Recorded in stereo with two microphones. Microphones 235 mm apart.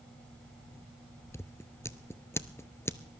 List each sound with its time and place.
1.3 s scissors: 10° left (ahead or behind), 0.5 m